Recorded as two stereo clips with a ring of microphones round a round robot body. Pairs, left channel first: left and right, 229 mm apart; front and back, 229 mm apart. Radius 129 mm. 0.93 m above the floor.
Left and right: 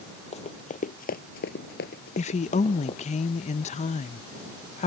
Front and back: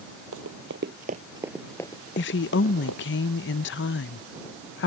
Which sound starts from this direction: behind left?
Running footsteps, at 0.3 s.